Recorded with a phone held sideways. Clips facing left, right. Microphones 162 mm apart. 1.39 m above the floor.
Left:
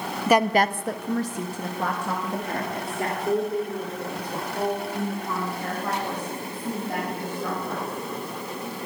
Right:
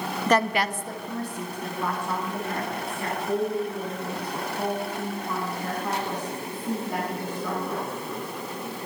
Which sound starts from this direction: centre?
A woman speaking, at 0.3 s.